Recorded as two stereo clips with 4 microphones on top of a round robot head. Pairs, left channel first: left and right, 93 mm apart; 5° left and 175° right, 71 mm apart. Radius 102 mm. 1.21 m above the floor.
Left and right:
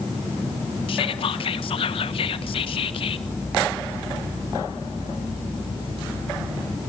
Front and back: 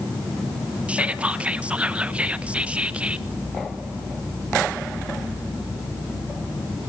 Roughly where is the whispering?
Left.